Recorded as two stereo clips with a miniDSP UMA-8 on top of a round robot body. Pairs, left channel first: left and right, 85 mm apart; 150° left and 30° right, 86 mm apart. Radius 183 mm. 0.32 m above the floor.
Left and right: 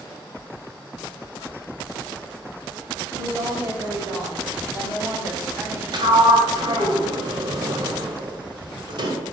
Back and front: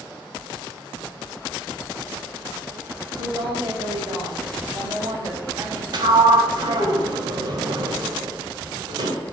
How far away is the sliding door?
About 1.3 m.